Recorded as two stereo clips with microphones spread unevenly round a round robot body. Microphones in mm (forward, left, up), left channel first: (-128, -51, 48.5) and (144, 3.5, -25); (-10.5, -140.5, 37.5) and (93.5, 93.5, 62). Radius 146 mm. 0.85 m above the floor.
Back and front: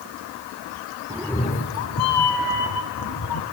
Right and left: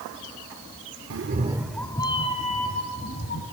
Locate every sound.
1.1 s a cat meowing: 95° left, 0.7 m; by 3.4 s 170° right, 2.5 m